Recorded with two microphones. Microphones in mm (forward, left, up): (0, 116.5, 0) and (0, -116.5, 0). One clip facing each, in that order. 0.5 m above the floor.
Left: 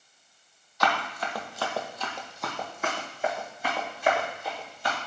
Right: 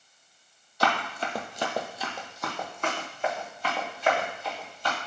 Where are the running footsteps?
30° right (ahead or behind), 0.6 m; by 5.0 s 15° left (ahead or behind), 2 m.